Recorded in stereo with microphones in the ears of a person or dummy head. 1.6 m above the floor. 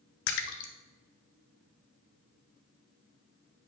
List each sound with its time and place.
0.3 s a splash: 60° left (ahead or behind), 0.8 m